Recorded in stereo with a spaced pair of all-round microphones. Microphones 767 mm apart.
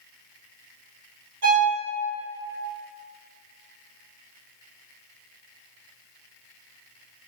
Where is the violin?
60° right (ahead or behind), 1.1 m.